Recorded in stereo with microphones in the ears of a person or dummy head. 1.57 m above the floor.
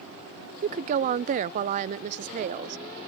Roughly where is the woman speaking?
Right.